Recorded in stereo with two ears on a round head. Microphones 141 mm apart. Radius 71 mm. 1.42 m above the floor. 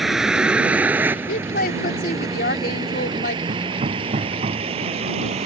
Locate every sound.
0.0 s a vehicle: centre (ahead or behind); by 5.5 s 40° right (ahead or behind)
1.3 s a woman speaking: 70° left (ahead or behind)
3.5 s hammering: 40° right (ahead or behind)